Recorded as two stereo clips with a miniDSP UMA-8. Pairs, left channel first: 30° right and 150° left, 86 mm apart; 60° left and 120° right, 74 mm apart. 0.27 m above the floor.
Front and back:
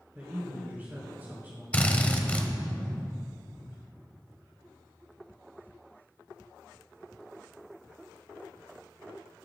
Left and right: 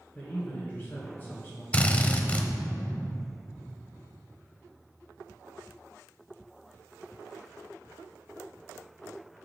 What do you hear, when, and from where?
0.1 s a man speaking: 105° left, 1.8 m
1.7 s a drill: 20° left, 0.7 m